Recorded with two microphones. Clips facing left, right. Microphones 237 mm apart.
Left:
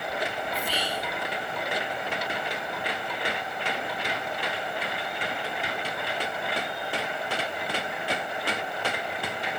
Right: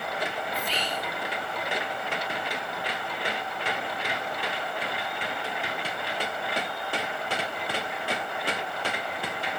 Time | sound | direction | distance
0.5 | whispering | 10° left (ahead or behind) | 0.5 m